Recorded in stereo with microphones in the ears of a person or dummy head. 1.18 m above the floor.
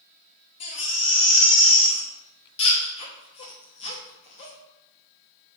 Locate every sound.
0.6 s a baby crying: 30° left (ahead or behind), 0.8 m